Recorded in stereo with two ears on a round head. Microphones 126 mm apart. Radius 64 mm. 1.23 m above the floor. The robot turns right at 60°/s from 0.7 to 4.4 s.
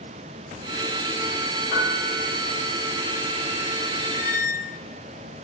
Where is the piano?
115° left, 2 m; by 2.3 s 155° left, 2 m.